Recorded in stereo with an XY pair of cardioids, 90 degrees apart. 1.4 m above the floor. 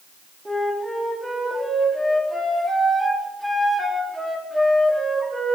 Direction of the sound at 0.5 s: 15° right.